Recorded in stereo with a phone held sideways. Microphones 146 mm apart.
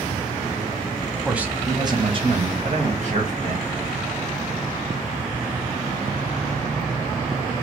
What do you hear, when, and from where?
1.2 s a man speaking: 5° right (ahead or behind), 0.7 m; by 3.8 s 60° right (ahead or behind), 1.8 m